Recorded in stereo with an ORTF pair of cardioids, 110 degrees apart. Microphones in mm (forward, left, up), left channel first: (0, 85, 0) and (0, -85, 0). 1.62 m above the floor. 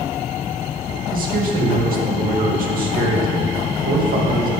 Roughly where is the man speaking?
Ahead right.